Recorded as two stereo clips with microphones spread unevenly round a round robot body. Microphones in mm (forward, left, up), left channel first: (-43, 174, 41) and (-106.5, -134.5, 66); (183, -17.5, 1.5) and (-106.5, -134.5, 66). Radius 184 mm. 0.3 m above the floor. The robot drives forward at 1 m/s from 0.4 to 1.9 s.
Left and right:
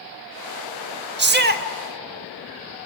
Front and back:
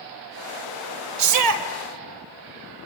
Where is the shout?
150° right, 1.2 m; by 1.6 s 160° right, 1.5 m.